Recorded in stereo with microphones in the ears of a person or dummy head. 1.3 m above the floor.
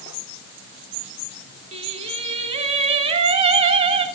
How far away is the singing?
About 2.5 m.